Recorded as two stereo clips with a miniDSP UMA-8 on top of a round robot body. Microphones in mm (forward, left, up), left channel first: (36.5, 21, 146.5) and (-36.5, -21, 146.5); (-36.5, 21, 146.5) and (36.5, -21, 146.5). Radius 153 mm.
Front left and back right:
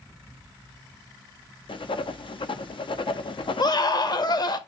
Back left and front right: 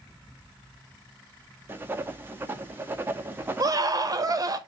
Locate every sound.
1.7 s writing: 35° left, 0.9 m
3.6 s a scream: 10° left, 1.4 m